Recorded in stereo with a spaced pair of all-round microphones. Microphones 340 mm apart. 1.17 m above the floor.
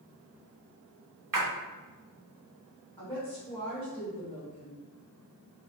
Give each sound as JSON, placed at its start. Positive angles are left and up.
{"t": 1.3, "sound": "a splash", "side_deg": -60, "distance_m": 0.6}
{"t": 3.0, "sound": "a woman speaking", "side_deg": 15, "distance_m": 1.4}